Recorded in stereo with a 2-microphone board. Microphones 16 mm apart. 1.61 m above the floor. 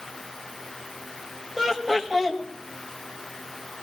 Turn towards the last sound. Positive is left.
turn(degrees=-30)  # may be behind; listen again after turning